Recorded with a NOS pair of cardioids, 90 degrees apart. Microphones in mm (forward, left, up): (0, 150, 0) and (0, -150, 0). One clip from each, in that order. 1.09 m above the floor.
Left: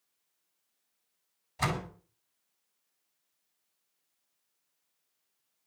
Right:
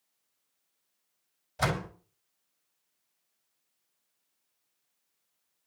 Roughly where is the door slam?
Ahead.